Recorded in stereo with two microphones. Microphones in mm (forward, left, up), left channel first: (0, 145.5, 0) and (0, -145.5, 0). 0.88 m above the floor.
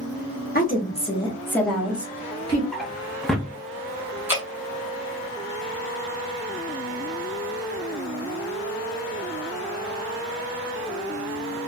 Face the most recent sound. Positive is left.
turn(degrees=-5)  # may be behind; listen again after turning